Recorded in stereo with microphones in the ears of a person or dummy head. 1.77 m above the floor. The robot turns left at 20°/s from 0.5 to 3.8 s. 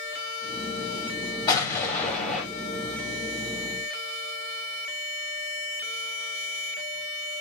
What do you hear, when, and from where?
1.5 s an explosion: 25° left (ahead or behind), 3 m; by 2.5 s 5° left (ahead or behind), 3 m